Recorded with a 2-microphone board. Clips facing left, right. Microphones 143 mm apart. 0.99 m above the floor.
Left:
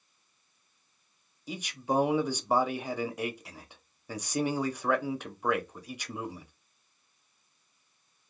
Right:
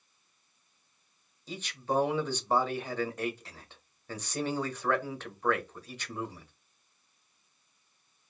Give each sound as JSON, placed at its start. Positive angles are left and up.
{"t": 1.5, "sound": "a man speaking", "side_deg": 10, "distance_m": 1.0}